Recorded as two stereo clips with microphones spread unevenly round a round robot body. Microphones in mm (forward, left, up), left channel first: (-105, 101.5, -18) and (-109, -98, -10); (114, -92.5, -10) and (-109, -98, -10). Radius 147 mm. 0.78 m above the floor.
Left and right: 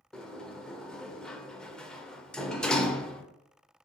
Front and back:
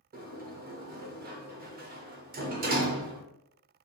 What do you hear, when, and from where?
0.1 s a sliding door: 175° left, 0.5 m